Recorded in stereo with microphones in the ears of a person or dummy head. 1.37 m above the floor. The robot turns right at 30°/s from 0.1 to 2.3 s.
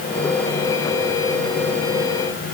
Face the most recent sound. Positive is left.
No sound to turn to.